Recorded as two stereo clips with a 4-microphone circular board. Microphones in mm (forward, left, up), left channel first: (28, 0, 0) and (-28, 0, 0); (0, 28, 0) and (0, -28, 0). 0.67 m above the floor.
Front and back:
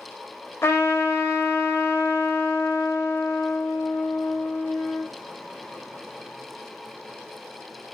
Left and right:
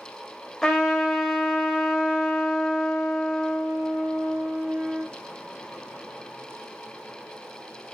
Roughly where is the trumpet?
Ahead.